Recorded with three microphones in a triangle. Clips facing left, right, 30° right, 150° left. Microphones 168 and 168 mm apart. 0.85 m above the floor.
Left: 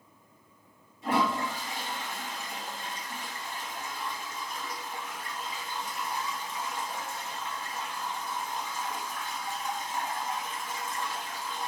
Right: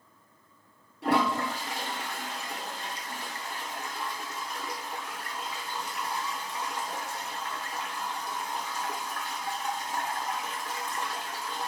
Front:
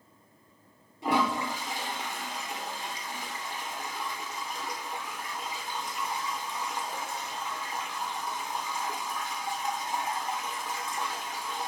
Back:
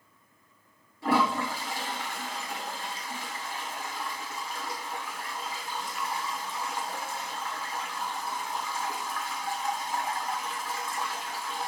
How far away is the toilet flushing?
About 1.3 m.